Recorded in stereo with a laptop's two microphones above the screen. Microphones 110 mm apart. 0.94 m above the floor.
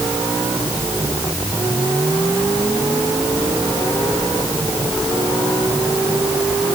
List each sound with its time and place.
Only background noise.